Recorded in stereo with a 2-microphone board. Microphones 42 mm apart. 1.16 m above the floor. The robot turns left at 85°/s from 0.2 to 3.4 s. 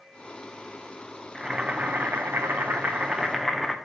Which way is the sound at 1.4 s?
5° right.